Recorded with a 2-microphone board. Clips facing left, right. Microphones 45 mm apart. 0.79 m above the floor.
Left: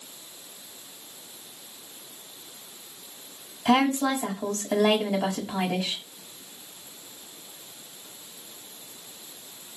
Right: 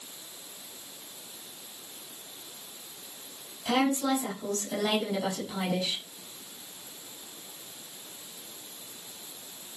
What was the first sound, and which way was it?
A woman speaking, 70° left (ahead or behind).